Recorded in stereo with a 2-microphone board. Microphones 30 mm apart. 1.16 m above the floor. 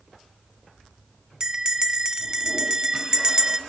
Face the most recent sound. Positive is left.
turn(degrees=-25)  # may be behind; listen again after turning